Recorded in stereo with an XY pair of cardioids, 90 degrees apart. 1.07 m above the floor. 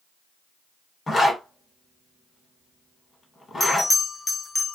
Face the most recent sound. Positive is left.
turn(degrees=35)